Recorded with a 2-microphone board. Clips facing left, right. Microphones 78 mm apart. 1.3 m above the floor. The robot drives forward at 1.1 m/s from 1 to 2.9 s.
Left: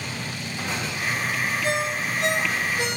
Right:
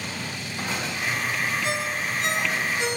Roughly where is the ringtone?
Left.